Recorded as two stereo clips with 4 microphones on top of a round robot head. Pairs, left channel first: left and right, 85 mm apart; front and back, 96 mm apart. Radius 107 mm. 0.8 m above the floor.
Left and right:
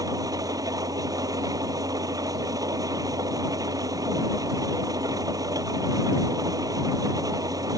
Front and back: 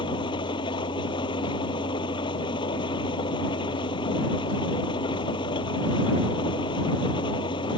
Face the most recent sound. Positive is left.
turn(degrees=-45)